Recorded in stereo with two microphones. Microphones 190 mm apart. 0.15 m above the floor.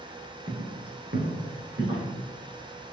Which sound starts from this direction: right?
Footsteps, at 0.5 s.